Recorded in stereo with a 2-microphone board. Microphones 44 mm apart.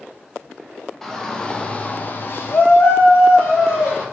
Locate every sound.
1.0 s a shout: 10° left (ahead or behind), 1.1 m; by 4.0 s 45° left (ahead or behind), 1.5 m